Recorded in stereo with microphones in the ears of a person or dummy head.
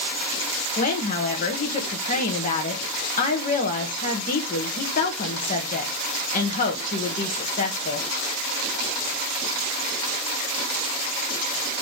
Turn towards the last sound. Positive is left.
turn(degrees=40)  # may be behind; listen again after turning